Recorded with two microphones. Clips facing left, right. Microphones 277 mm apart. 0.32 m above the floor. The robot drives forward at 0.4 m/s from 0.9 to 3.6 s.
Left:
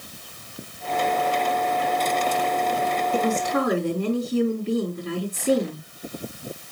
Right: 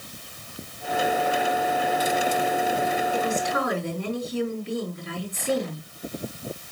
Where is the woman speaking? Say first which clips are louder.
Left 3 dB; 50° left (ahead or behind), 4 m.